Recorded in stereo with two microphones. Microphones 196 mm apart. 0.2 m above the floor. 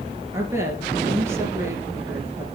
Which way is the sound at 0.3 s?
15° right (ahead or behind).